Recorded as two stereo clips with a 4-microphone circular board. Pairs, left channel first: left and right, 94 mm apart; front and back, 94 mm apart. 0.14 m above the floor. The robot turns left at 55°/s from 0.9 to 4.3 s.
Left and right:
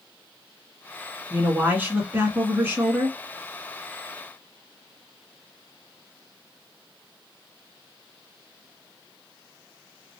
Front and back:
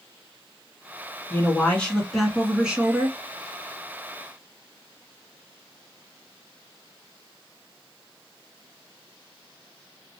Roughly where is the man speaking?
Ahead right.